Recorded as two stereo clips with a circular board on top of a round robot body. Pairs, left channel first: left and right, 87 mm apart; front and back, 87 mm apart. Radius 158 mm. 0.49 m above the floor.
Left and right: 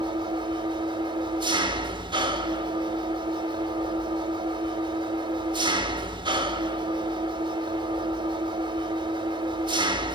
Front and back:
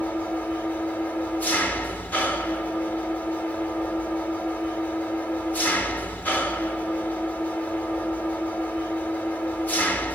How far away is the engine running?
About 2 m.